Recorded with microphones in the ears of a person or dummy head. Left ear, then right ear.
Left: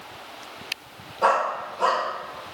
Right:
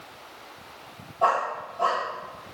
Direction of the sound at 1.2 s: 15° right (ahead or behind).